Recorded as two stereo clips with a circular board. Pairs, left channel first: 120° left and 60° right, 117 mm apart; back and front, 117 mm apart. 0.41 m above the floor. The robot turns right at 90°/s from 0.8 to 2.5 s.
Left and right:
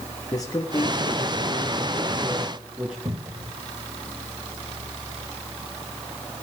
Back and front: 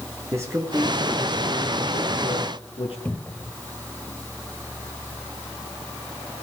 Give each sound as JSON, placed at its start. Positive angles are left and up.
{"t": 0.3, "sound": "a man speaking", "azimuth_deg": 65, "distance_m": 6.0}
{"t": 3.0, "sound": "a cupboard door", "azimuth_deg": -105, "distance_m": 2.0}